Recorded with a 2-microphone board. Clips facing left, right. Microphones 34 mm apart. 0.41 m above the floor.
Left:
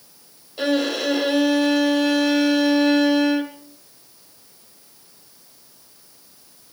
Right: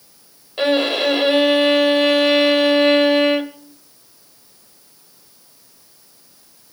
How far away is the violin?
About 1.7 m.